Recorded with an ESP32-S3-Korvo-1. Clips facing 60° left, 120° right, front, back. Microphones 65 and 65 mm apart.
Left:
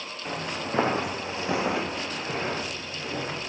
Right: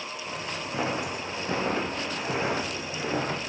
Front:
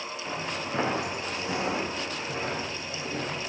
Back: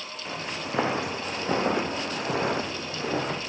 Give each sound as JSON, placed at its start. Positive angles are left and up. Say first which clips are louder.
{"t": 0.2, "sound": "footsteps", "louder": "left 5 dB, back 1 dB", "azimuth_deg": 95, "distance_m": 2.5}